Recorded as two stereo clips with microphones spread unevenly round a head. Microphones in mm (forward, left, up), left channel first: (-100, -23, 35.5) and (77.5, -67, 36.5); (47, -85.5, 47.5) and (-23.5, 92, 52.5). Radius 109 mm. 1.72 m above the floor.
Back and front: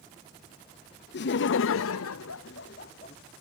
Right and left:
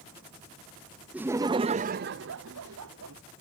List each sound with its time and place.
1.1 s laughter: 165° right; by 3.2 s 110° left